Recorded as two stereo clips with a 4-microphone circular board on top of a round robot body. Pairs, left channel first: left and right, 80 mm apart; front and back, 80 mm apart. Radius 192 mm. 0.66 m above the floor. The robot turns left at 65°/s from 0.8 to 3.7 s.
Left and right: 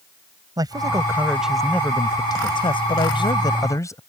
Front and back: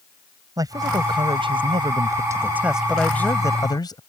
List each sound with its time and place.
0.6 s a man speaking: 135° right; by 4.0 s 40° left